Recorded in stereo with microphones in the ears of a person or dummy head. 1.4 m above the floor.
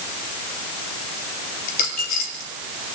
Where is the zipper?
No zipper in this recording.